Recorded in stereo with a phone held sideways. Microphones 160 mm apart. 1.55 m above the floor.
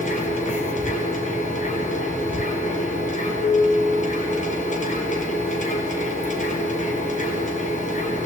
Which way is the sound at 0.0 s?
50° left (ahead or behind).